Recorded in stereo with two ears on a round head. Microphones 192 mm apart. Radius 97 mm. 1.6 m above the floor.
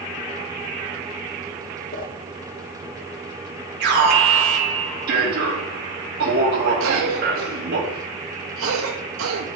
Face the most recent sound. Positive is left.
turn(degrees=-75)  # may be behind; listen again after turning